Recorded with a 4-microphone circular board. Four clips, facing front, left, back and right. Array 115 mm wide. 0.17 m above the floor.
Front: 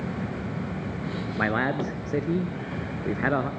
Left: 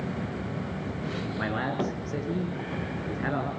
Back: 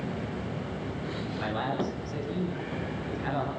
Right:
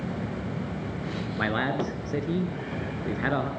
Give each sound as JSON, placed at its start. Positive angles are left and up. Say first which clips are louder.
{"t": 1.4, "sound": "a man speaking", "louder": "right 3 dB, front 5 dB", "azimuth_deg": -15, "distance_m": 2.5}